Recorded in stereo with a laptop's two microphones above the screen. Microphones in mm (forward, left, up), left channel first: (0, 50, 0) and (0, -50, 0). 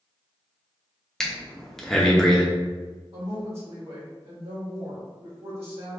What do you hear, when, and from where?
1.2 s breathing: 5° left (ahead or behind), 0.8 m
3.1 s a woman speaking: 75° right (ahead or behind), 1.9 m